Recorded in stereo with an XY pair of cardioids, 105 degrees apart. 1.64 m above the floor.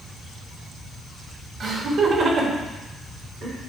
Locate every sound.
1.6 s laughter: 40° right, 2.5 m; by 3.6 s 65° right, 3.5 m